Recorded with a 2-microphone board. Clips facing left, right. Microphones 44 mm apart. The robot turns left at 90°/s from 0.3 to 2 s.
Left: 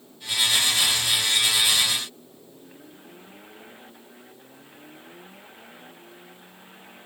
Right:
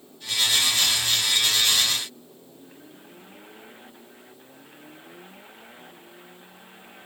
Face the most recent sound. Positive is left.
No sound to turn to.